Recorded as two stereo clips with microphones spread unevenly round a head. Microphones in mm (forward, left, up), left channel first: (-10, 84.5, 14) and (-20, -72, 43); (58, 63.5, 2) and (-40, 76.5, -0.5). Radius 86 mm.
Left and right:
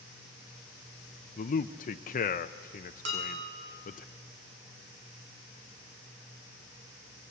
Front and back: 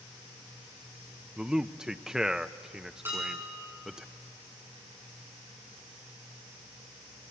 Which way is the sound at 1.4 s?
90° left.